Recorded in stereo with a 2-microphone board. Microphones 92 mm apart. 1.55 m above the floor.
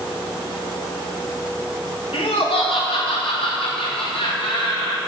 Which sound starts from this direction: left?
Laughter, at 2.1 s.